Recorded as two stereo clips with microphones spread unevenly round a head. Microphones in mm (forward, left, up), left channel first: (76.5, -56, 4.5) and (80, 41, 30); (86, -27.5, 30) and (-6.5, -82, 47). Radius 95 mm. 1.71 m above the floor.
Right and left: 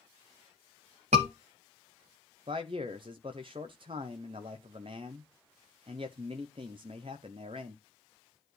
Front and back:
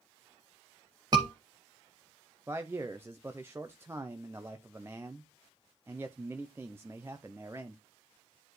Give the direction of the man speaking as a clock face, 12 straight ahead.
7 o'clock.